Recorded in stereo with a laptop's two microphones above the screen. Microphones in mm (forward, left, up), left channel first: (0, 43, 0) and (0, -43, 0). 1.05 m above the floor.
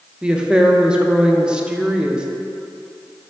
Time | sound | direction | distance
0.2 | a woman speaking | 10° right (ahead or behind) | 0.5 m